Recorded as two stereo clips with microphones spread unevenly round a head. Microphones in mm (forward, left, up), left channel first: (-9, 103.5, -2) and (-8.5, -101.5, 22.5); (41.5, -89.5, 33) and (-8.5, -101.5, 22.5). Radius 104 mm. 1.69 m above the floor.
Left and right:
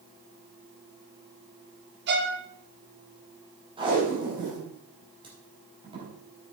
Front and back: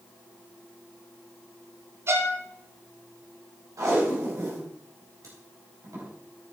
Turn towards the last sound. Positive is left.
turn(degrees=-155)